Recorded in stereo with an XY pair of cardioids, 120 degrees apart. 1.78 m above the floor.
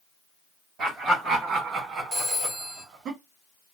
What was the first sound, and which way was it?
Laughter, 50° right.